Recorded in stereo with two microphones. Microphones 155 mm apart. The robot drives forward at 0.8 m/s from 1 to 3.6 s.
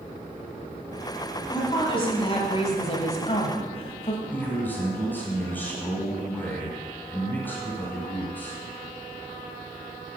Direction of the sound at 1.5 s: 30° left (ahead or behind).